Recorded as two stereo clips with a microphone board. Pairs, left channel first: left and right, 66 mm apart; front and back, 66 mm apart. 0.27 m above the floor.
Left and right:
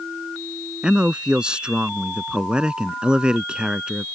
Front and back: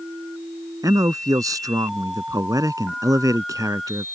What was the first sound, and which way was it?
A man speaking, 165° right.